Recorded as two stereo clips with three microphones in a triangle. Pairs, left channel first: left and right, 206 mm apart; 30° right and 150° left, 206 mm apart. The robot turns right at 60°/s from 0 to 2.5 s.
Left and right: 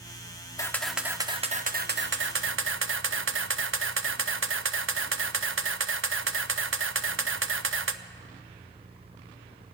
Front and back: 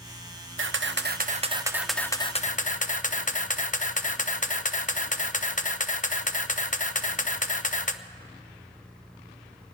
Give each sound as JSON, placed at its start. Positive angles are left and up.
{"t": 0.6, "sound": "a camera shutter", "azimuth_deg": 160, "distance_m": 0.6}